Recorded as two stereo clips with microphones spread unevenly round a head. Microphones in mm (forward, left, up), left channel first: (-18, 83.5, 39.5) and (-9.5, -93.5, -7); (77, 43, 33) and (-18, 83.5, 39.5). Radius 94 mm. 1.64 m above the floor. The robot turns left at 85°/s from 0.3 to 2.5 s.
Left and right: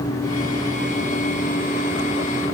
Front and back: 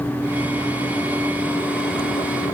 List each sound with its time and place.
Only background noise.